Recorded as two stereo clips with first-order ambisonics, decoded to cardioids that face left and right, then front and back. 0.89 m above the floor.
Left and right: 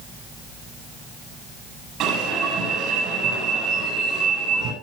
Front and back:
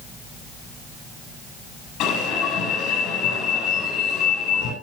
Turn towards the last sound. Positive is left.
turn(degrees=-45)